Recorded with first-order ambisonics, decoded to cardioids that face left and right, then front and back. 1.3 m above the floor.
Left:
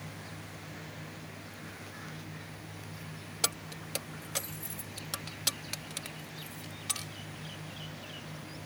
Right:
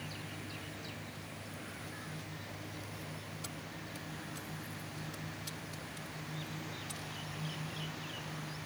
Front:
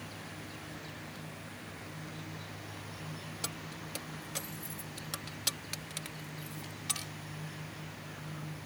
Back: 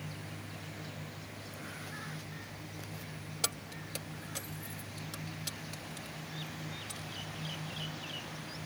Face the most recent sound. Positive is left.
turn(degrees=45)